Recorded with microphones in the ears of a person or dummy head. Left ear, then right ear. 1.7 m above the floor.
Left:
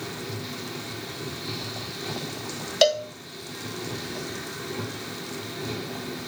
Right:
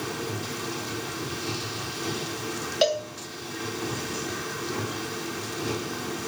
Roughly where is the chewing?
I don't hear chewing.